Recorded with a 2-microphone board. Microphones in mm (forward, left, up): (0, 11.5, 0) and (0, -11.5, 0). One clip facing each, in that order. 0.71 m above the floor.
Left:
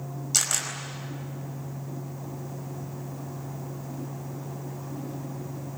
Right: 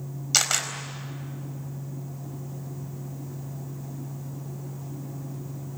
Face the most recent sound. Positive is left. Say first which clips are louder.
# right 3 dB
turn(degrees=-30)  # may be behind; listen again after turning